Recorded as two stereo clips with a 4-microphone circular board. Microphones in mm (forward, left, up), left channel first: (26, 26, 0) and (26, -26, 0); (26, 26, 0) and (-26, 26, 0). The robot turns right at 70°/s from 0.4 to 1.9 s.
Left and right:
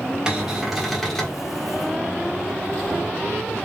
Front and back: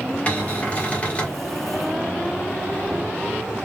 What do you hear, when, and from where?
0.3 s a cupboard door: 35° right, 1.3 m; by 1.4 s 35° left, 1.3 m